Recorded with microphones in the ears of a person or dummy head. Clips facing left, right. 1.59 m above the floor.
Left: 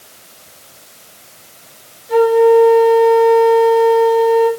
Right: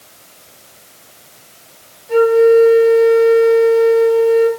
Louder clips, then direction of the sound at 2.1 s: Even; centre (ahead or behind).